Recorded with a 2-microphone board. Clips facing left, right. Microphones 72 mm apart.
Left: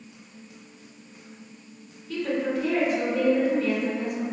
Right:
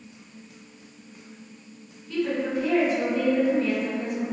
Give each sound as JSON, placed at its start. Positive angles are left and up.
{"t": 2.1, "sound": "a woman speaking", "side_deg": -10, "distance_m": 1.9}